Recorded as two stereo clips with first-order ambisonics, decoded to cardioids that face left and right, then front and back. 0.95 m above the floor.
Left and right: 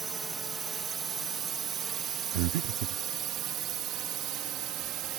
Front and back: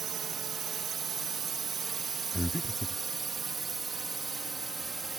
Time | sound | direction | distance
0.0 | a drone | 145° right | ?
2.3 | breathing | 90° right | ?